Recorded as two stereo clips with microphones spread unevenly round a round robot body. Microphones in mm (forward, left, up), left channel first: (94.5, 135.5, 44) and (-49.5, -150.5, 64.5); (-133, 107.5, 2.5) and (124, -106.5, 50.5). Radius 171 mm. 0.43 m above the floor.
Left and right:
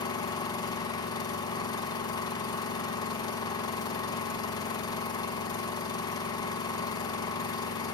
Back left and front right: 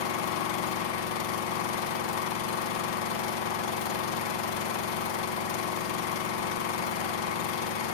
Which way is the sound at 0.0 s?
140° left.